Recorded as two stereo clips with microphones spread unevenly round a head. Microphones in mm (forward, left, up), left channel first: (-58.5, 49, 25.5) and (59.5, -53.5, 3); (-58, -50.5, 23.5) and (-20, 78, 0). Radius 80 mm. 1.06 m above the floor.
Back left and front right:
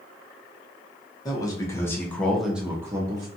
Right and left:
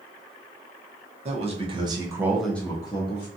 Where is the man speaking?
70° left, 0.9 m; by 3.3 s 80° right, 0.6 m.